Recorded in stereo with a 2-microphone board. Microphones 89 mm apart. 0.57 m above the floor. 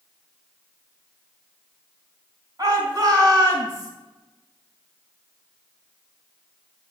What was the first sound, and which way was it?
A shout, 45° right (ahead or behind).